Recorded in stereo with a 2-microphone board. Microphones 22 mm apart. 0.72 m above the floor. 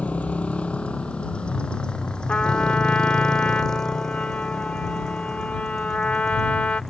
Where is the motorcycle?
70° left (ahead or behind); by 6.9 s 10° left (ahead or behind).